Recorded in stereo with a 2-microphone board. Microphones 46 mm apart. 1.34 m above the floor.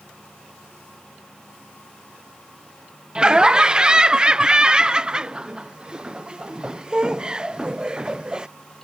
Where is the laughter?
20° right (ahead or behind).